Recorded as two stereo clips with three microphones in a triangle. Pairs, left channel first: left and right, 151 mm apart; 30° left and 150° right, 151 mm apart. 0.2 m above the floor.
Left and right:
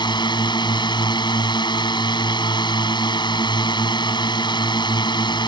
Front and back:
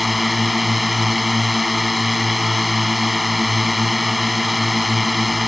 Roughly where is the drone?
Behind left.